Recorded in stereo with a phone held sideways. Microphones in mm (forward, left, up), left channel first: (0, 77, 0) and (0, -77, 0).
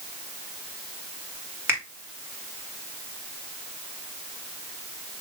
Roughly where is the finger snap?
Centre.